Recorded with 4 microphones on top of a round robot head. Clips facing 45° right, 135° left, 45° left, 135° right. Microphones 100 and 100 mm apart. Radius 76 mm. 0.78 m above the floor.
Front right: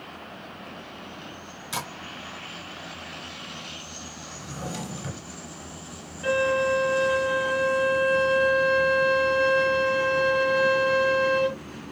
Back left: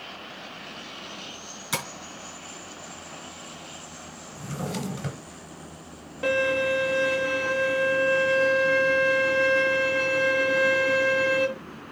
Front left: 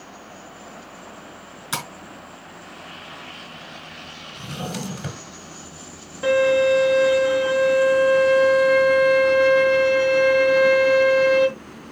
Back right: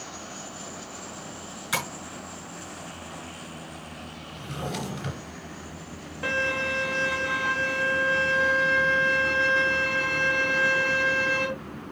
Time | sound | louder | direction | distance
1.7 | tapping | back left 1 dB, even | 110° left | 5 m
4.3 | a drawer | back left 3 dB, front left 2 dB | 95° left | 3 m
6.2 | a violin | front right 1 dB, front left 13 dB | 120° left | 3.5 m